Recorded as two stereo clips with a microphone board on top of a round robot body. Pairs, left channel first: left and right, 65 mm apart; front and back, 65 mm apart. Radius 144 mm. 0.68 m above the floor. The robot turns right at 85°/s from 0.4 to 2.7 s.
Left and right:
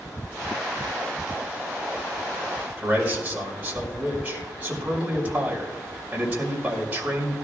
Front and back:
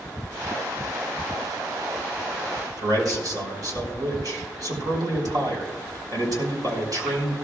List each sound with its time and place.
2.8 s a man speaking: 160° right, 5 m